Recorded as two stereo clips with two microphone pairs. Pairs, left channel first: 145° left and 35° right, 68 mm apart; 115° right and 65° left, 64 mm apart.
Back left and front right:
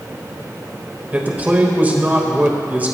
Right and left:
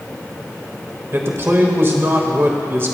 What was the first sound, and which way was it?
A man speaking, 25° left.